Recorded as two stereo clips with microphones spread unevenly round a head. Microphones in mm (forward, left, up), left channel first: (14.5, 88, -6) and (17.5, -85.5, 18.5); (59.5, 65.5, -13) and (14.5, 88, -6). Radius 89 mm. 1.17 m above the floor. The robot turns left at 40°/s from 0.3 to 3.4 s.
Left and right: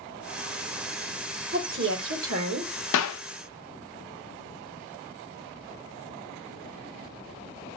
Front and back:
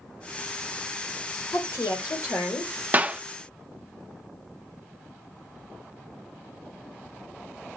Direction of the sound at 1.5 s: 60° right.